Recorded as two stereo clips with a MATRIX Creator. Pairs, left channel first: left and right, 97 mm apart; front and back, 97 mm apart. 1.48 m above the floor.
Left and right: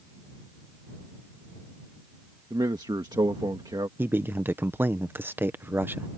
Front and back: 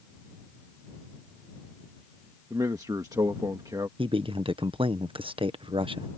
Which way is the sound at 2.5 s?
130° right.